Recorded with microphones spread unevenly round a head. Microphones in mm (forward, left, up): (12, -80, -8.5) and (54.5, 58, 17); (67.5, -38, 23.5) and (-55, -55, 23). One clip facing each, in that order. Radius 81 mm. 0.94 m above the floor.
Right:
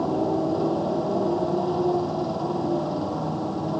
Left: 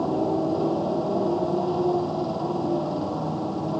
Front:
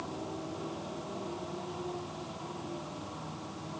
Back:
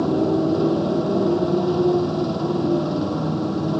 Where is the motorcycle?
160° left.